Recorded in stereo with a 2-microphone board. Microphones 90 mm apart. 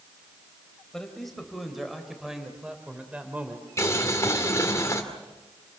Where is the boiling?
35° left (ahead or behind), 2.5 m.